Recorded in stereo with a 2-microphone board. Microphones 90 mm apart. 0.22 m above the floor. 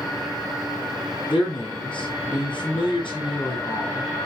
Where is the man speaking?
70° left (ahead or behind), 4.5 m.